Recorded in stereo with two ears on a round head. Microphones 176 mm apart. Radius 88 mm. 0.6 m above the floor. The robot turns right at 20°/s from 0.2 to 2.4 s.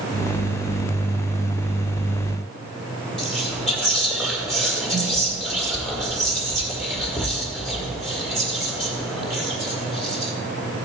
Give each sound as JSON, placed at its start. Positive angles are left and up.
{"t": 3.2, "sound": "whispering", "side_deg": 5, "distance_m": 1.7}